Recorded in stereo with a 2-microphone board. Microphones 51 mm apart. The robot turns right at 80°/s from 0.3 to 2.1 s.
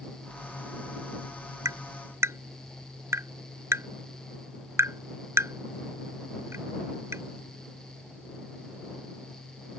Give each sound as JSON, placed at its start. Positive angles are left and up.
{"t": 1.6, "sound": "tapping", "side_deg": -85}